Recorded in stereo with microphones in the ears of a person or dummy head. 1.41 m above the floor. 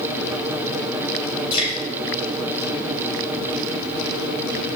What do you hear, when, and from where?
1.5 s dripping: 35° left (ahead or behind), 6.5 m